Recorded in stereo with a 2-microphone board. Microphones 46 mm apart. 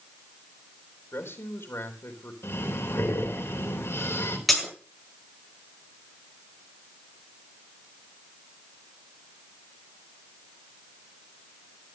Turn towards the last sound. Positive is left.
turn(degrees=0)  # may be behind; listen again after turning